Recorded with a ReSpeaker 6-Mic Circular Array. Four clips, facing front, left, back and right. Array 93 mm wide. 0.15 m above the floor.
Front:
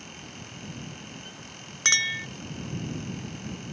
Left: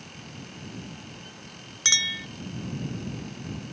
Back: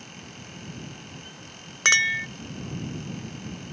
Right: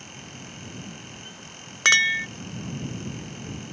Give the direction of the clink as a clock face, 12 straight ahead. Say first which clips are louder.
Right 10 dB, back 6 dB; 4 o'clock.